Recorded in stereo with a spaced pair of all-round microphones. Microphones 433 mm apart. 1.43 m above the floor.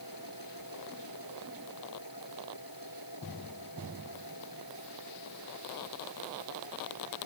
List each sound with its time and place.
0.0 s a machine running: 50° left (ahead or behind)